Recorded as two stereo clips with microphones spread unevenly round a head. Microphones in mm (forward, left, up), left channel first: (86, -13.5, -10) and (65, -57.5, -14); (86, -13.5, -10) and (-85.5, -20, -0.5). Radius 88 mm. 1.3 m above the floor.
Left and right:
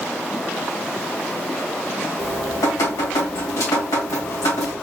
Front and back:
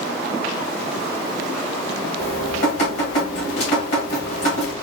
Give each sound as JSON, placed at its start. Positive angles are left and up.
{"t": 2.2, "sound": "dripping", "azimuth_deg": 55, "distance_m": 2.0}